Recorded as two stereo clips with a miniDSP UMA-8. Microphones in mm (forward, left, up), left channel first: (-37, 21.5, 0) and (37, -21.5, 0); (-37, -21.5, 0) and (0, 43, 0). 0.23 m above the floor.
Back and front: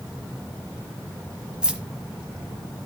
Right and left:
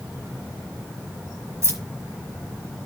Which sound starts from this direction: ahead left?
Keys jangling, at 1.6 s.